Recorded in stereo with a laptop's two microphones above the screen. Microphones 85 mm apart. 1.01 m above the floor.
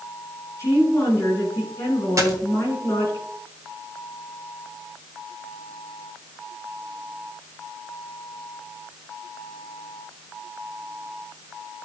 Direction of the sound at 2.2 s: 40° right (ahead or behind).